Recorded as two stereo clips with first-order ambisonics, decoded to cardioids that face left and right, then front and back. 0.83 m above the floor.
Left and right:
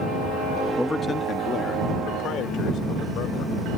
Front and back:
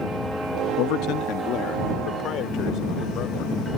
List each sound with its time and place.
0.8 s a man speaking: straight ahead; by 3.5 s 50° left